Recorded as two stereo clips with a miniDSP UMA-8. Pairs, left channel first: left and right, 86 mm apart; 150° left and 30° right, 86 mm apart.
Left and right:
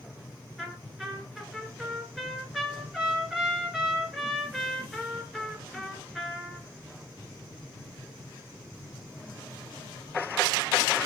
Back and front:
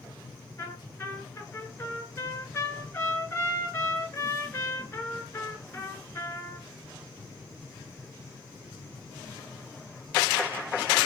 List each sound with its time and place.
0.6 s a trumpet: 170° right, 1.1 m